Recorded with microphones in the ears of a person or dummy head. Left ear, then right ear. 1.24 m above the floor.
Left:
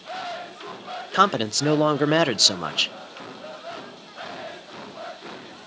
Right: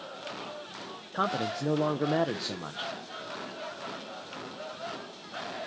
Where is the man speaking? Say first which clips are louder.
Left 10 dB; 65° left (ahead or behind), 0.5 m.